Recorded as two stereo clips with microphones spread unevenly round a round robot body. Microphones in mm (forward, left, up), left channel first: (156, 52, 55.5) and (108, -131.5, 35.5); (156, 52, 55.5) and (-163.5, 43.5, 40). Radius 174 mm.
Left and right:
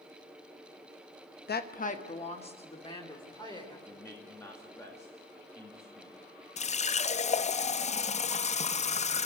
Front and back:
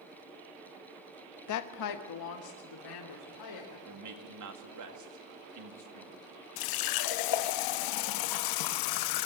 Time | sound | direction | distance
1.5 | a woman speaking | 35° left | 1.0 m
3.9 | a man speaking | 155° left | 2.5 m
6.6 | a running tap | 20° left | 0.6 m